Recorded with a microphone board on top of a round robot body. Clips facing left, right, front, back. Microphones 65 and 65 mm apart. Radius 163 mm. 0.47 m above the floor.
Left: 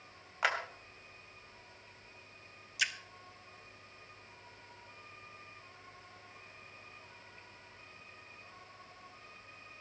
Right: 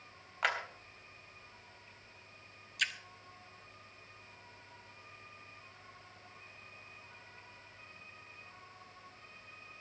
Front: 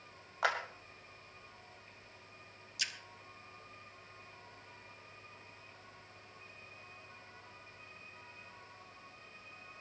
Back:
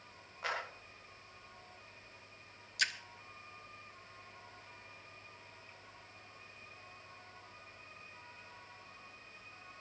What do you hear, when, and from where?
0.4 s a clap: 5° left, 3 m
2.8 s a splash: 175° left, 1.1 m